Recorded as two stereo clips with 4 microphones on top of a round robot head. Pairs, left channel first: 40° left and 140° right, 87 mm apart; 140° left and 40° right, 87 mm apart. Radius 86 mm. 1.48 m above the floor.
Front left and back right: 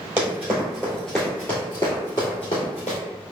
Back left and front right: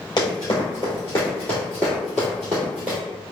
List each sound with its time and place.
0.2 s running footsteps: 165° left, 1.6 m; by 3.0 s 35° left, 1.8 m